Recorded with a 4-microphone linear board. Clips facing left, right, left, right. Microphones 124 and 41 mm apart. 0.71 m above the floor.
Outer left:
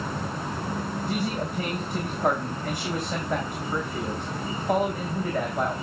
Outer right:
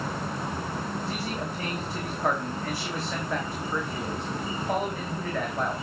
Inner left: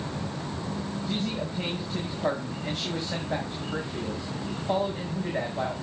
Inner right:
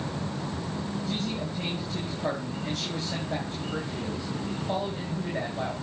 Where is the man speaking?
15° left (ahead or behind), 4.5 m.